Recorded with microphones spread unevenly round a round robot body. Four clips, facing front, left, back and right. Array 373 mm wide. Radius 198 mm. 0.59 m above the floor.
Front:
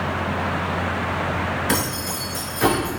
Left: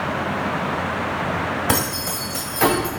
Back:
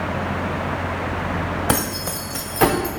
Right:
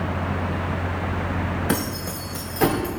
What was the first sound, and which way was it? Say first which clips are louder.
Keys jangling: left 2 dB, back 1 dB; 140° left.